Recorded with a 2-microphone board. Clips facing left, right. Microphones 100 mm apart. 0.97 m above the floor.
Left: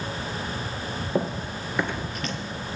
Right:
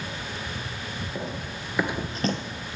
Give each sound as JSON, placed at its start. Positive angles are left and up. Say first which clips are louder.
{"t": 1.1, "sound": "running footsteps", "louder": "left 10 dB", "side_deg": 45, "distance_m": 1.3}